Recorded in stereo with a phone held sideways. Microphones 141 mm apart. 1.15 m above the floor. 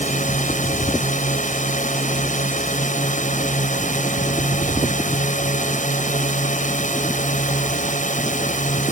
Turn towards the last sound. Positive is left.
turn(degrees=65)  # may be behind; listen again after turning